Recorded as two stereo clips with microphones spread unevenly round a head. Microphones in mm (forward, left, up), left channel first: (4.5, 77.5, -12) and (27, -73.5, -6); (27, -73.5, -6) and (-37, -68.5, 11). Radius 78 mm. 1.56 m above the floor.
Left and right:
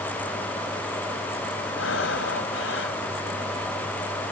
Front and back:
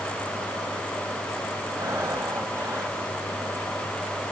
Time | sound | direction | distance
1.8 | breathing | 105° left | ?